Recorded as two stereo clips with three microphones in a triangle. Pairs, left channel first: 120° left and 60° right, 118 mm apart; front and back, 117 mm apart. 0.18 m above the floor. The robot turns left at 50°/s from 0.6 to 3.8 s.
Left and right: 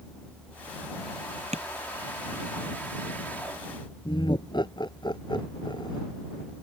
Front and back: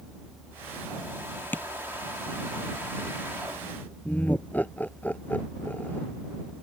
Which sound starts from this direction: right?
Tapping, at 1.5 s.